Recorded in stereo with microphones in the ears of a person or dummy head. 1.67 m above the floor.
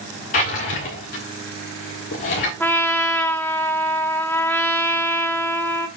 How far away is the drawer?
About 1.4 m.